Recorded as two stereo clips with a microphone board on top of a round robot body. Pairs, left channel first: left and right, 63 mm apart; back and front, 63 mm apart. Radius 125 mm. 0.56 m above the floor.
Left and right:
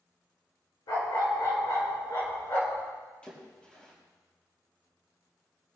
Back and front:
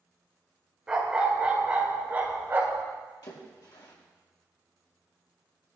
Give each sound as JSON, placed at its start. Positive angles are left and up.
{"t": 0.9, "sound": "a dog barking", "azimuth_deg": 80, "distance_m": 3.0}
{"t": 3.2, "sound": "a splash", "azimuth_deg": 165, "distance_m": 4.0}